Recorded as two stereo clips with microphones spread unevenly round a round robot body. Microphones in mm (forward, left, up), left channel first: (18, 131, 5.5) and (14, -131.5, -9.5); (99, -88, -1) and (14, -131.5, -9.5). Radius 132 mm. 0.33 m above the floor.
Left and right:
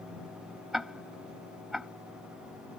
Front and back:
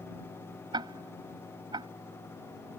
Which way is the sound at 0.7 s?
Straight behind.